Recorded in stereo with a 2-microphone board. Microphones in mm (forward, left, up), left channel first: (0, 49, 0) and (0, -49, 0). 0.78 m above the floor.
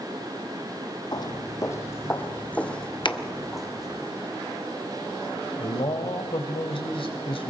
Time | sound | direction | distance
1.1 | footsteps | 45° left (ahead or behind) | 1.4 m
3.0 | a finger snap | 50° left (ahead or behind) | 0.8 m
5.6 | a man speaking | 65° left (ahead or behind) | 3 m